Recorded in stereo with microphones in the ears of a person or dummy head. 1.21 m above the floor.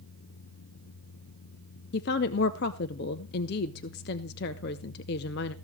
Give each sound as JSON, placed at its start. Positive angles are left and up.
{"t": 1.9, "sound": "a woman speaking", "side_deg": 45, "distance_m": 0.7}